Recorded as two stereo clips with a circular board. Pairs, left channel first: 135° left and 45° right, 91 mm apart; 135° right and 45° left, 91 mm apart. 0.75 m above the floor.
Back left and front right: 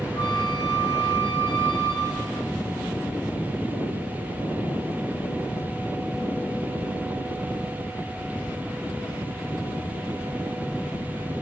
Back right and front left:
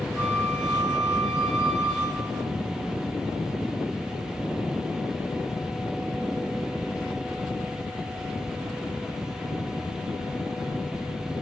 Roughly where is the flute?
Behind left.